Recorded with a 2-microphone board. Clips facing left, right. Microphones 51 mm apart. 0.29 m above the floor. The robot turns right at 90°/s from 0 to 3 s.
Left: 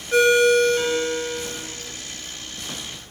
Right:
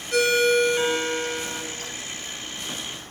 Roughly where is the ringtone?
Behind left.